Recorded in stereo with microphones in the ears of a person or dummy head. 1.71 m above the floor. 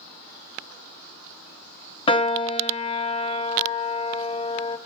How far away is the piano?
About 0.9 m.